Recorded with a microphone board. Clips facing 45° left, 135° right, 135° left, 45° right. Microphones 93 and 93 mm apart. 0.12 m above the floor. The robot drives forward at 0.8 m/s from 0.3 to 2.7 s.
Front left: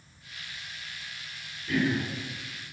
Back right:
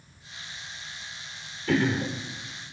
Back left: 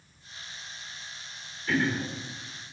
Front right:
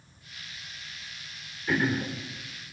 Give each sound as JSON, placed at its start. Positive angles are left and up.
{"t": 1.7, "sound": "throat clearing", "azimuth_deg": -125, "distance_m": 3.5}